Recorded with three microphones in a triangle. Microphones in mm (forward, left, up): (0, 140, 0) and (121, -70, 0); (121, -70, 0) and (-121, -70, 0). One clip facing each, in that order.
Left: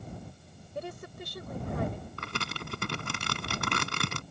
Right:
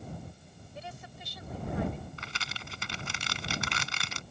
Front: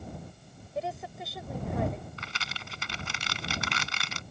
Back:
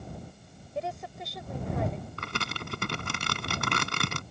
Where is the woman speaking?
90° left.